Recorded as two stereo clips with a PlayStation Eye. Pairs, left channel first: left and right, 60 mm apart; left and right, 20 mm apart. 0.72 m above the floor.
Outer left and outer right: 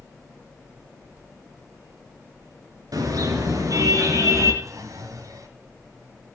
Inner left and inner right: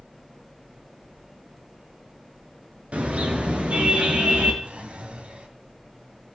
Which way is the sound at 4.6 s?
65° right (ahead or behind).